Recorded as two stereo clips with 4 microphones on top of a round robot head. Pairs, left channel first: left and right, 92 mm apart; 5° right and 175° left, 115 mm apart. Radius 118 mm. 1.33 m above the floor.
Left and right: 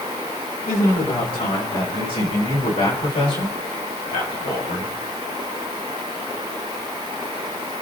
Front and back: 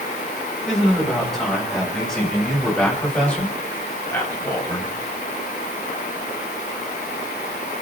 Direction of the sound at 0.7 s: 85° left.